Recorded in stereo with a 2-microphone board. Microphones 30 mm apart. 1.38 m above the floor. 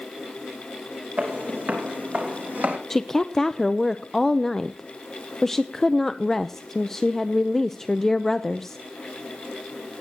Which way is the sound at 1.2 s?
65° right (ahead or behind).